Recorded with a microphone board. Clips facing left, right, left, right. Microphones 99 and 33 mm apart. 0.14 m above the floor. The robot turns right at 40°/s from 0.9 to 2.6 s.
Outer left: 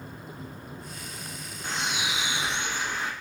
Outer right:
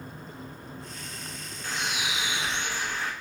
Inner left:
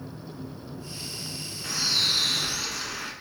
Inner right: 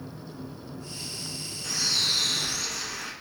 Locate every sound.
1.6 s a bird: 25° left (ahead or behind), 0.9 m; by 3.1 s 20° left (ahead or behind), 0.9 m